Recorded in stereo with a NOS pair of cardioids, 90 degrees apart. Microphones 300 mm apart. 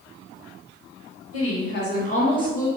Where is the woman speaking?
55° left, 1.1 m; by 2.7 s 10° left, 1.2 m.